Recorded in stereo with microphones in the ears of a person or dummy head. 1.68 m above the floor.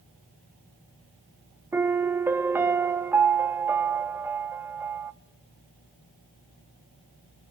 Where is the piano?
15° right (ahead or behind), 0.9 m.